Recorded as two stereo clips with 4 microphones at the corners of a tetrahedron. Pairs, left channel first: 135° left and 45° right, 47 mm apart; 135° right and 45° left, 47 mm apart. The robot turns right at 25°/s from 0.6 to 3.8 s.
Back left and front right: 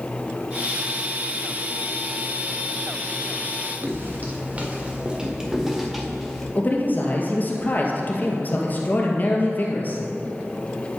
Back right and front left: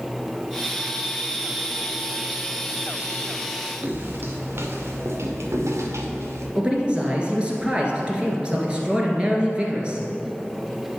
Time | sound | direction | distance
3.8 | footsteps | straight ahead | 1.7 m
6.5 | a man speaking | 105° left | 1.7 m